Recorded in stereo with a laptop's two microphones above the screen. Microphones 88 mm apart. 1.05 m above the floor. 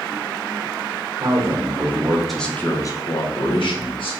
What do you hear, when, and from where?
1.2 s a man speaking: 40° right (ahead or behind), 0.9 m; by 4.2 s 75° left (ahead or behind), 1.1 m